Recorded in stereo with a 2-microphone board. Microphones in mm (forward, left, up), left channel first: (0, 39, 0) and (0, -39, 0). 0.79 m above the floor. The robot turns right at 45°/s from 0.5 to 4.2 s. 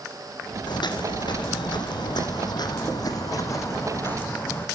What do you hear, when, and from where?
0.7 s footsteps: 70° left (ahead or behind), 2.5 m; by 4.7 s 30° left (ahead or behind), 3.5 m